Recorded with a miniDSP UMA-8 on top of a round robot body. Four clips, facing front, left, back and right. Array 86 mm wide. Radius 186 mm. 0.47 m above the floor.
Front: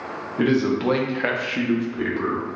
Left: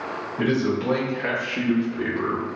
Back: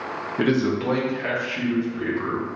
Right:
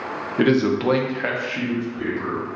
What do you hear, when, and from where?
0.4 s a man speaking: 100° right, 0.9 m; by 2.5 s 20° left, 1.4 m